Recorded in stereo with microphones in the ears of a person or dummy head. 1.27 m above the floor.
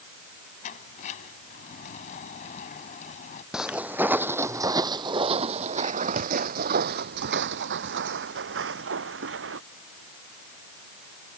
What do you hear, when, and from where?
0.6 s a sliding door: 50° left (ahead or behind)
3.5 s footsteps: centre (ahead or behind); by 9.6 s 75° right (ahead or behind)